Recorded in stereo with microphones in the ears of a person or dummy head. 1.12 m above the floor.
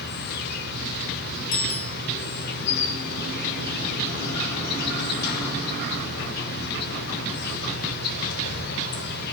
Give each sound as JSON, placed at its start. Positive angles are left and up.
{"t": 0.0, "sound": "an insect", "side_deg": 60, "distance_m": 3.0}
{"t": 1.5, "sound": "a bicycle bell", "side_deg": 85, "distance_m": 7.0}